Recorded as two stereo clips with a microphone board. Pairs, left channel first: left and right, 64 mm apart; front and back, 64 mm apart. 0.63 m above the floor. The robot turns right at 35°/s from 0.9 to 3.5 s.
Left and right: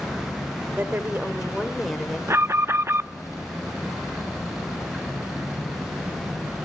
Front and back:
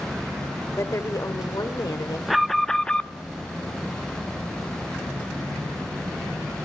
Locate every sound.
0.8 s a woman speaking: 35° right, 2.5 m; by 2.2 s 10° left, 2.5 m
2.3 s an alarm: 95° right, 0.5 m; by 3.1 s 65° right, 0.5 m